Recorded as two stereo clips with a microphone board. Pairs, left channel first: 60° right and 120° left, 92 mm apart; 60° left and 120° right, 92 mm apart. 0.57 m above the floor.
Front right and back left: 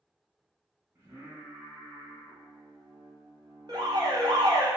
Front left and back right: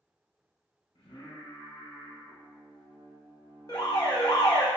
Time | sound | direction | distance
0.9 | singing | 55° left | 1.2 m
3.7 | an alarm | 95° left | 0.7 m